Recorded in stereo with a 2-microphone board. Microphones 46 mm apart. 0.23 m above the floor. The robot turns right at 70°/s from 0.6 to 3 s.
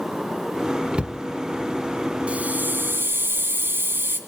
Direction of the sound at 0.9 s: 20° right (ahead or behind).